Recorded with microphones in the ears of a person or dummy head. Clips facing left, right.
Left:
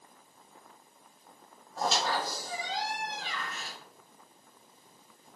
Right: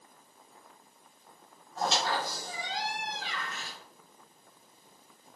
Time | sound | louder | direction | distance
1.8 | a squeak | even | centre (ahead or behind) | 1.5 m